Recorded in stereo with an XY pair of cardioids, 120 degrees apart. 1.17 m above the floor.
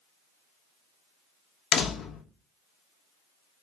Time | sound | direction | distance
1.7 | a door slam | 60° left | 0.9 m